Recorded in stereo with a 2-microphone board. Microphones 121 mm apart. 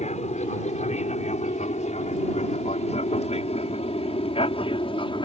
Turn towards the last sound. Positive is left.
turn(degrees=45)  # may be behind; listen again after turning